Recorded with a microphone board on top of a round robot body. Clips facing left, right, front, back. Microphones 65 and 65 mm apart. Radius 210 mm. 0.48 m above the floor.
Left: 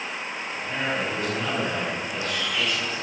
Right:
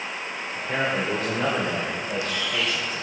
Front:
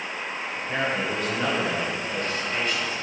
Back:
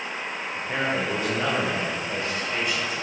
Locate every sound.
0.6 s a man speaking: 105° right, 2 m; by 3.0 s 110° right, 3.5 m